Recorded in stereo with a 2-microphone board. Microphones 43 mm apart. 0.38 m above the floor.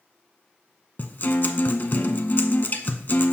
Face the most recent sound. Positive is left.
turn(degrees=50)  # may be behind; listen again after turning